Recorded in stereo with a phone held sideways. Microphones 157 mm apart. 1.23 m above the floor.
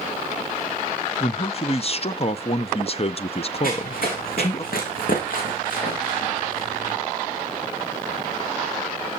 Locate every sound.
1.2 s a man speaking: 40° left (ahead or behind), 0.6 m
3.6 s running footsteps: 70° left (ahead or behind), 4.5 m; by 7.0 s 45° left (ahead or behind), 5.5 m